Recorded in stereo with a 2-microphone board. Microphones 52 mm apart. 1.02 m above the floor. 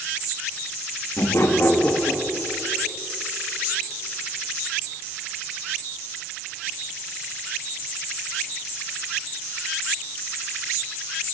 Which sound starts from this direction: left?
Laughter, at 1.2 s.